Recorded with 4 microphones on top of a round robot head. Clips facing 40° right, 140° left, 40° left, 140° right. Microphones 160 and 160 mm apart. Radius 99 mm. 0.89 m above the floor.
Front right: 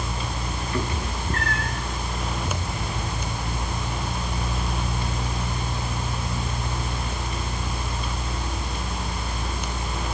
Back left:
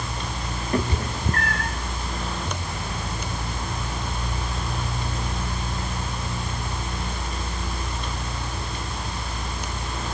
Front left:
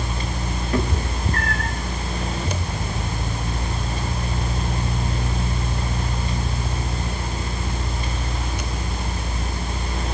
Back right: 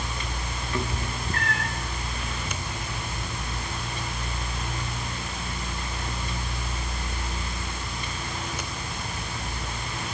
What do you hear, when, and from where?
0.7 s a cat meowing: 90° left, 1.9 m